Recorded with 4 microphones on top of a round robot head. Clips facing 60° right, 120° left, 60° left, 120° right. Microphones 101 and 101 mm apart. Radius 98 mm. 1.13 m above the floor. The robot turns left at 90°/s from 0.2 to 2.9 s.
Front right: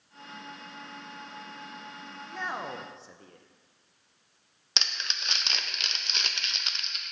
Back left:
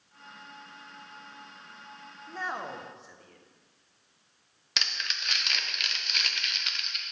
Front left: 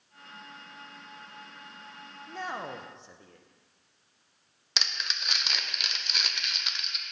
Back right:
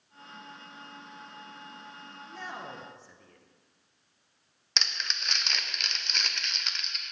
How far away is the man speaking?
About 1.0 m.